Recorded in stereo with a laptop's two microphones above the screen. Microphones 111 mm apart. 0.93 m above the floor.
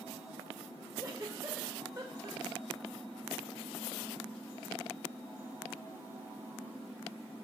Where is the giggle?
35° right (ahead or behind), 0.9 m.